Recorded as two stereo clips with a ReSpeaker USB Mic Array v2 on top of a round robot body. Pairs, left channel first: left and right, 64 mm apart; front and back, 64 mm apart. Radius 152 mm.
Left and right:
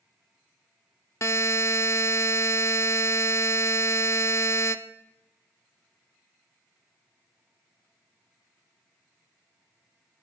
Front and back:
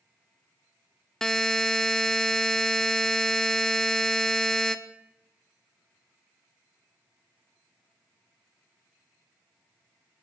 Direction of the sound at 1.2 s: 80° left.